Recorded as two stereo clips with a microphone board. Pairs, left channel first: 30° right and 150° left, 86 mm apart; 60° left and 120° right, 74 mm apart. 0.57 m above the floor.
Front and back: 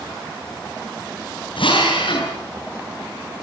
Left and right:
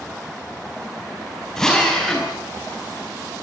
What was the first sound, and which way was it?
A drill, 20° right.